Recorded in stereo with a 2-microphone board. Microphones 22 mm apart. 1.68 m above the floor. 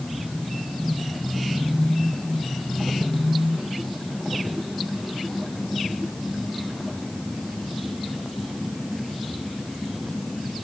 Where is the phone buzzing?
I don't hear a phone buzzing.